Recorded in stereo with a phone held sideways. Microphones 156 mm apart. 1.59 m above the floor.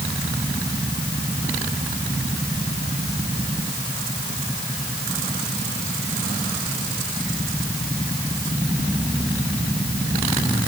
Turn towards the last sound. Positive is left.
No sound to turn to.